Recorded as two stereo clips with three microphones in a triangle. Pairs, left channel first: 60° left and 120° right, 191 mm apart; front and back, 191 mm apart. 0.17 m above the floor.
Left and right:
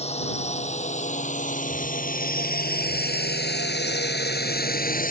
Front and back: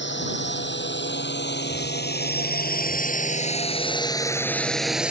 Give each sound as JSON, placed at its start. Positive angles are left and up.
{"t": 0.0, "sound": "a drone", "azimuth_deg": 5}